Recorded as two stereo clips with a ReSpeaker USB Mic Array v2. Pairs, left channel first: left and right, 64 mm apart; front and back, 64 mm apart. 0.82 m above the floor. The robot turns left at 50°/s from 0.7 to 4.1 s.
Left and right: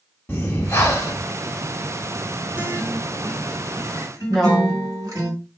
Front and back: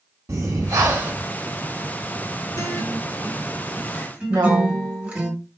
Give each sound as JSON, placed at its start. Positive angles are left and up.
{"t": 0.3, "sound": "breathing", "azimuth_deg": 145, "distance_m": 0.8}
{"t": 2.5, "sound": "a guitar", "azimuth_deg": -35, "distance_m": 1.4}
{"t": 4.3, "sound": "a woman speaking", "azimuth_deg": 180, "distance_m": 1.0}